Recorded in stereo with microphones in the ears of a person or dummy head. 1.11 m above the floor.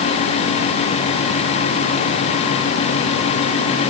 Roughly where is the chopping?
I don't hear chopping.